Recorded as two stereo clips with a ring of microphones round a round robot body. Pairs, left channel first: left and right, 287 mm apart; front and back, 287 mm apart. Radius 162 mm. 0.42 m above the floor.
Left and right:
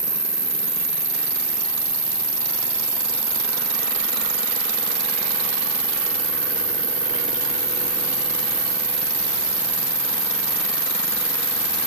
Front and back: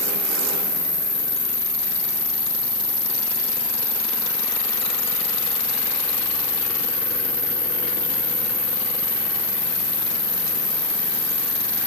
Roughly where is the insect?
Ahead.